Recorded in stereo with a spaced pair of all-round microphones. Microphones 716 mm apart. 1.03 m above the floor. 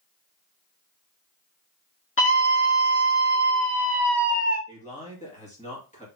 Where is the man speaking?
10° left (ahead or behind), 1.9 m.